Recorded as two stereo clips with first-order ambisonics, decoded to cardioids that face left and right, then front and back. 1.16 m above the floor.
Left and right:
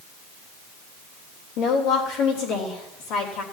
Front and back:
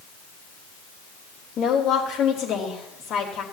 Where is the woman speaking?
65° left, 4 m.